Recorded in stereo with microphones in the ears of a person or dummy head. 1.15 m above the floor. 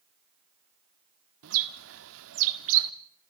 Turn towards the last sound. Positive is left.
turn(degrees=-80)